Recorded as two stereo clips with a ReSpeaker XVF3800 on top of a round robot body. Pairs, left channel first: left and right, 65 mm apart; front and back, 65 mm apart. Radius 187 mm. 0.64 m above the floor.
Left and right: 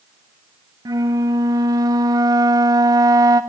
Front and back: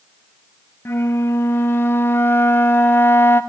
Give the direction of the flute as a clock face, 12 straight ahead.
2 o'clock.